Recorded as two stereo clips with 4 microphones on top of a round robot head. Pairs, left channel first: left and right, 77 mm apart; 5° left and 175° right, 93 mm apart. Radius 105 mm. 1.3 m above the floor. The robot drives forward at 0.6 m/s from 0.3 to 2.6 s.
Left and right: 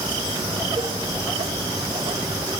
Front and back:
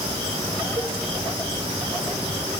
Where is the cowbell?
125° right, 1.2 m; by 0.9 s 130° right, 1.2 m.